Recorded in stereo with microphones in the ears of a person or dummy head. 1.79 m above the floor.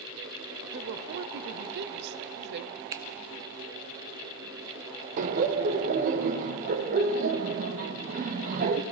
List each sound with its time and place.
0.7 s a woman speaking: 60° right (ahead or behind), 0.7 m
2.9 s a finger snap: 20° right (ahead or behind), 0.5 m
5.2 s laughter: 40° right (ahead or behind), 0.9 m